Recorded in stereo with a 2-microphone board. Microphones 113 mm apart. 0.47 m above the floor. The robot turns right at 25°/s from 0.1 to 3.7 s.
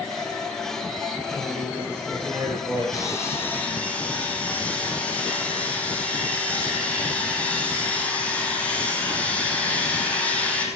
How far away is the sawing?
About 3.5 m.